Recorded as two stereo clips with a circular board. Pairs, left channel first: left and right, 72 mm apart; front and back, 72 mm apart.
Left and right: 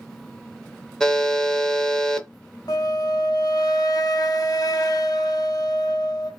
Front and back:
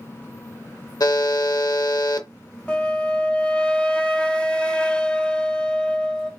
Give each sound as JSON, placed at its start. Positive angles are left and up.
{"t": 1.0, "sound": "a buzzer", "azimuth_deg": 10, "distance_m": 0.6}
{"t": 2.7, "sound": "a flute", "azimuth_deg": 75, "distance_m": 0.5}